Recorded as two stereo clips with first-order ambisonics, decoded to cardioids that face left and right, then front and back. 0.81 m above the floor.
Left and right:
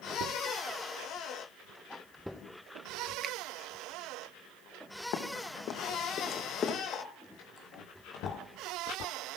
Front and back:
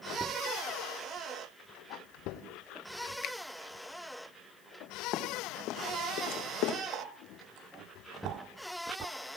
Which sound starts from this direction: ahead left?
Running footsteps, at 5.1 s.